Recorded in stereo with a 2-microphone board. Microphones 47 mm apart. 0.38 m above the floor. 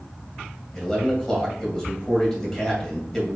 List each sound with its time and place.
0.7 s a man speaking: 10° left (ahead or behind), 1.8 m